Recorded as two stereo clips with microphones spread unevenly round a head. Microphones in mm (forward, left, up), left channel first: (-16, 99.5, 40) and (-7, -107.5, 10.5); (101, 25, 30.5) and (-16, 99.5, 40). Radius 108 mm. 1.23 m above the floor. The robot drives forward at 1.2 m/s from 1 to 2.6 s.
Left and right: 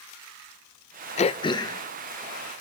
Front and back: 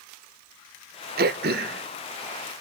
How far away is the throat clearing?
About 0.7 m.